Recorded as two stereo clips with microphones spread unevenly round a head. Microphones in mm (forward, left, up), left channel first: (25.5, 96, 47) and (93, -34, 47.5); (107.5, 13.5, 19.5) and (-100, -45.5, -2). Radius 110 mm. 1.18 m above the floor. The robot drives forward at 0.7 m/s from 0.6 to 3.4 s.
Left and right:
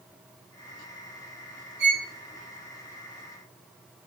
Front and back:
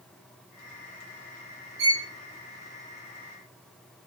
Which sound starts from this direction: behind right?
A violin, at 1.8 s.